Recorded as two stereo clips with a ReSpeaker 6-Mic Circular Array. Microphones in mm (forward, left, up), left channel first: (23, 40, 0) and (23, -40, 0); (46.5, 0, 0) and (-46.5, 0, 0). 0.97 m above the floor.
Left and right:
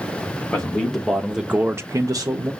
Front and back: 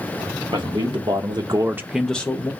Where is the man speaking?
165° left, 1.3 m; by 2.5 s 55° right, 0.8 m.